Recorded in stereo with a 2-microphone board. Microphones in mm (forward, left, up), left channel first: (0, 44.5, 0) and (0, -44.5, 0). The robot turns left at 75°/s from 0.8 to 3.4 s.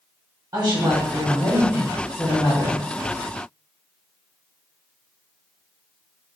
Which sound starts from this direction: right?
A woman speaking, at 0.5 s.